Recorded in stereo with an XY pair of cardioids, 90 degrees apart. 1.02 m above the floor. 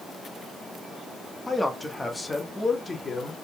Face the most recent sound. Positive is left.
turn(degrees=30)